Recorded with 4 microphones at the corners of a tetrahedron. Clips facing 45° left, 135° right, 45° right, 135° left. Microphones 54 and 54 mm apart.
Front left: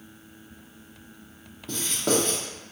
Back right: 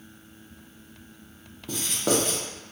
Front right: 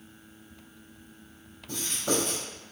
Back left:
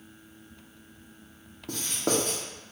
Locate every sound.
1.7 s writing: 145° left, 1.0 m